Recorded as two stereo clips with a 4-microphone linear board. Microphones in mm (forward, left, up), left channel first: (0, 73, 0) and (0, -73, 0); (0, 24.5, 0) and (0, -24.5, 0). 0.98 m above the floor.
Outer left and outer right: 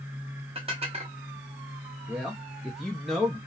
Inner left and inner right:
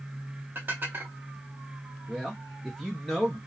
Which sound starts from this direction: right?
Dishes clattering, at 0.6 s.